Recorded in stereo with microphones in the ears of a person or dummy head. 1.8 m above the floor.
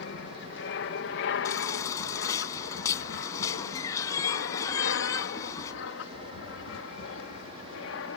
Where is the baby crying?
20° left (ahead or behind).